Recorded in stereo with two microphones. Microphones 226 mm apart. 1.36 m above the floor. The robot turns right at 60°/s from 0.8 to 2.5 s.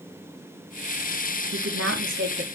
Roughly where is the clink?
I don't hear a clink.